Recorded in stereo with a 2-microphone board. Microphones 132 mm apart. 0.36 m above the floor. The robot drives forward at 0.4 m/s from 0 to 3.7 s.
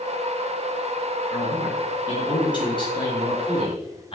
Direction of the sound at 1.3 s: 35° left (ahead or behind).